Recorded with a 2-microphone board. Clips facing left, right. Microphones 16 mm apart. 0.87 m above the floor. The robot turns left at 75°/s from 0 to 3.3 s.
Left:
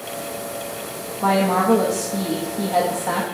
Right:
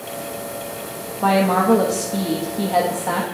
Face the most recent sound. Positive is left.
turn(degrees=170)